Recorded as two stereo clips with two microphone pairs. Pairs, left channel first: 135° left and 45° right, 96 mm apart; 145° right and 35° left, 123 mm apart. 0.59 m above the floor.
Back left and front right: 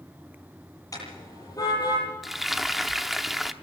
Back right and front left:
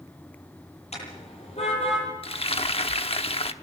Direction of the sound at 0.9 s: 170° right.